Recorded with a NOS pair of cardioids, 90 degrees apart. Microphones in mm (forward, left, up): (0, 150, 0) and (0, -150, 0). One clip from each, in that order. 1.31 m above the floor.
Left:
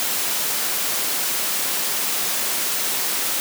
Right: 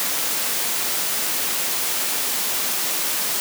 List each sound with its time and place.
Only background noise.